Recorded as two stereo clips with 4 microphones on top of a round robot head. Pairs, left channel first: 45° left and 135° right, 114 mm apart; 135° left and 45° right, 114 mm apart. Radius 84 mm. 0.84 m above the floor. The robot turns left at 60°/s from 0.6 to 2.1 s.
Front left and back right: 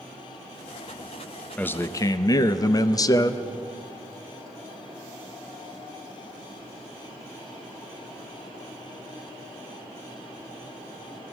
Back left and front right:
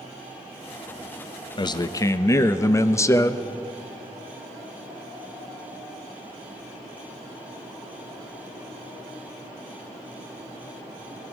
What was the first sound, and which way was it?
A man speaking, 115° left.